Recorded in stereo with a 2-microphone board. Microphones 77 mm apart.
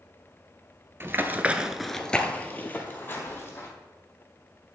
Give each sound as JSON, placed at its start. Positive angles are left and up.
{"t": 1.0, "sound": "running footsteps", "side_deg": -35, "distance_m": 0.7}